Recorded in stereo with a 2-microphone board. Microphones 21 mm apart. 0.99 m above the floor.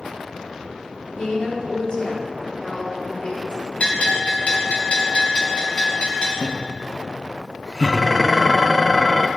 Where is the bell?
60° left (ahead or behind), 3.5 m.